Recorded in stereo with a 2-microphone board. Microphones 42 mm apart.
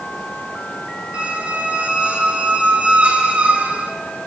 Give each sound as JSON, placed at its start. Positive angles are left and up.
{"t": 1.1, "sound": "a squeak", "side_deg": -35, "distance_m": 0.5}